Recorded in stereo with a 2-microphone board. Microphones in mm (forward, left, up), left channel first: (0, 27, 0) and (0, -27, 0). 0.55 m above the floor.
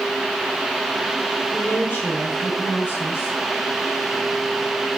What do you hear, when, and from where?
1.5 s a woman speaking: 40° left (ahead or behind), 6 m